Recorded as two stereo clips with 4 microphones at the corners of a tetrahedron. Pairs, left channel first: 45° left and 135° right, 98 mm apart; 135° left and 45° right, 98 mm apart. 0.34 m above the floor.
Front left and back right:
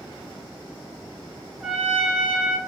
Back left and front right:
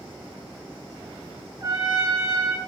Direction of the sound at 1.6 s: 50° right.